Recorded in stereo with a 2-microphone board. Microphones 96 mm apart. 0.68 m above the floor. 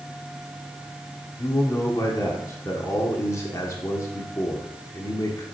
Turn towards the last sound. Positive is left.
turn(degrees=30)  # may be behind; listen again after turning